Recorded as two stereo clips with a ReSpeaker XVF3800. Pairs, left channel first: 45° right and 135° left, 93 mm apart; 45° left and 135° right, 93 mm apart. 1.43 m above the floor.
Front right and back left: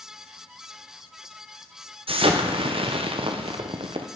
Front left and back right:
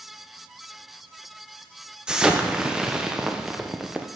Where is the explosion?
145° left, 0.6 m.